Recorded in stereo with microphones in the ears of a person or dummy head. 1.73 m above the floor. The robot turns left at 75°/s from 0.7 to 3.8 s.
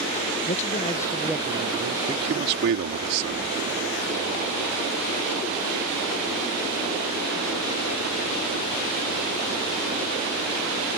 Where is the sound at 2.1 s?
25° right; by 3.6 s 140° right.